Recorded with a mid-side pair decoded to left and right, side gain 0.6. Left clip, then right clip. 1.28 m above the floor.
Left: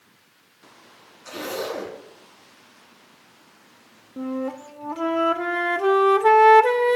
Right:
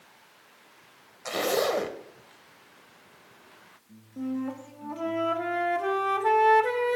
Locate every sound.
1.2 s a zipper: 65° right, 1.0 m
4.2 s a flute: 40° left, 0.6 m